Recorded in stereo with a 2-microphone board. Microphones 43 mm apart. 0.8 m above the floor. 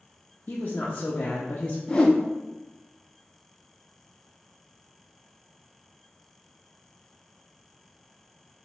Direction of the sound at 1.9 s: 20° left (ahead or behind).